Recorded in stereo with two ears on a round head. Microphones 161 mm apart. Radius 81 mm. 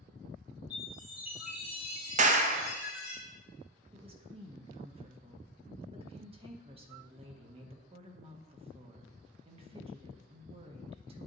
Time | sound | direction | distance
0.7 | a chime | 5° right (ahead or behind) | 4.5 m
2.2 | a clap | 40° right (ahead or behind) | 0.8 m
3.9 | a woman speaking | 30° right (ahead or behind) | 1.2 m